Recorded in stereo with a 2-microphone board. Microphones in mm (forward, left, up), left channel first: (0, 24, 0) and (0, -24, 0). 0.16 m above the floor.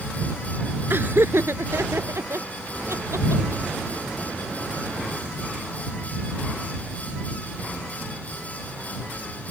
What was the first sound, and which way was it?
Laughter, 55° right (ahead or behind).